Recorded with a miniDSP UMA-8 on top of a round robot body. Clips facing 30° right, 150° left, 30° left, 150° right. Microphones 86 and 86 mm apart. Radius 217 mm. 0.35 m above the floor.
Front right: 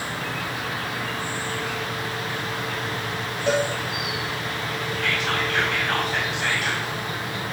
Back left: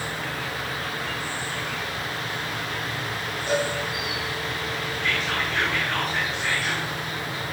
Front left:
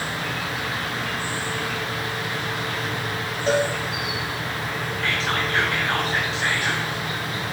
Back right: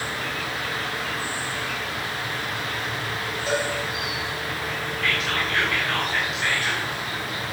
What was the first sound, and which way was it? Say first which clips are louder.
An insect: front right 1 dB, front left 1 dB; 40° right.